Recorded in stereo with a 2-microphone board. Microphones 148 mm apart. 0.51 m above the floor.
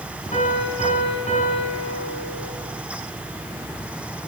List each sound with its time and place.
0.3 s a piano: 55° left (ahead or behind), 5 m